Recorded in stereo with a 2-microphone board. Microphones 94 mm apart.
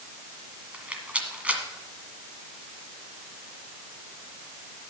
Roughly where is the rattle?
Centre.